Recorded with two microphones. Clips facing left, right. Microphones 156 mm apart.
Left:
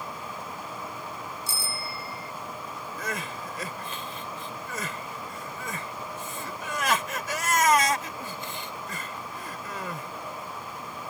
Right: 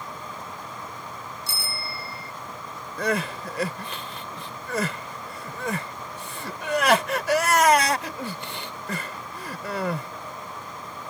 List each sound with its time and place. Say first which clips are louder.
1.5 s a bicycle bell: even; 70° right (ahead or behind)
3.0 s crying: right 10 dB; 70° right (ahead or behind)